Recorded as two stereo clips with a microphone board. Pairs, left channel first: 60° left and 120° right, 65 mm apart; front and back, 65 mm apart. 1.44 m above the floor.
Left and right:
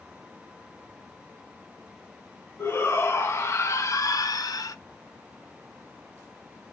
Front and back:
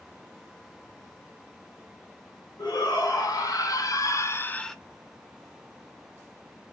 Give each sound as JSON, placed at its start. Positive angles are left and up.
{"t": 2.6, "sound": "a shout", "azimuth_deg": 10, "distance_m": 2.0}